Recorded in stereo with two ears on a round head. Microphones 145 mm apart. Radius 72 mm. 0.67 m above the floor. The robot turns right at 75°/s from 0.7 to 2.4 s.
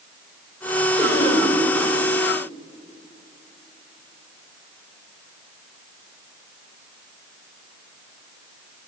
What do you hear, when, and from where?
1.0 s a cough: 10° left, 2 m; by 1.5 s 45° left, 2 m